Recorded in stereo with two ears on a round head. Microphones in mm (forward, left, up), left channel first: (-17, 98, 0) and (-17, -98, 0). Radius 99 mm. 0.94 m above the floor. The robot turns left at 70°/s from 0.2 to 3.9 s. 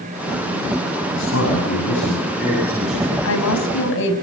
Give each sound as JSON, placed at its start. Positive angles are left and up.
{"t": 1.1, "sound": "a man speaking", "azimuth_deg": 120, "distance_m": 8.5}
{"t": 3.2, "sound": "a woman speaking", "azimuth_deg": 105, "distance_m": 5.5}